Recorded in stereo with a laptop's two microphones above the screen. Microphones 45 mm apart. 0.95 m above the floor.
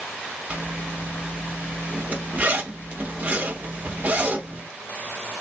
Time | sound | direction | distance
0.5 | a zipper | 30° right (ahead or behind) | 0.7 m